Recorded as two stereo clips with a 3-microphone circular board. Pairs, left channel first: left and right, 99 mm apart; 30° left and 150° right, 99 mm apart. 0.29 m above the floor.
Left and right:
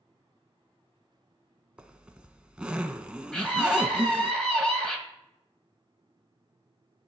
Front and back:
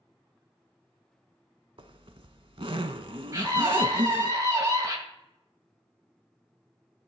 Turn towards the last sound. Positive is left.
turn(degrees=170)